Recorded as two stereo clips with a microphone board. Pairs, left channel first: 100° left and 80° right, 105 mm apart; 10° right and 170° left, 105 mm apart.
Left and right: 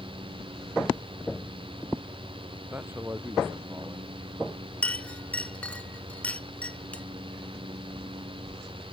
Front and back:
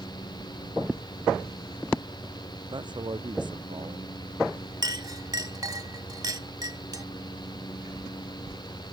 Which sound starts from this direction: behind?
A clink, at 4.8 s.